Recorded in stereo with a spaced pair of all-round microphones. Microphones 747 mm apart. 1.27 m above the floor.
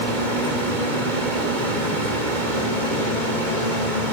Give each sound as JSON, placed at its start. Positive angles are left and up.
{"t": 0.0, "sound": "a fan", "side_deg": -85, "distance_m": 3.5}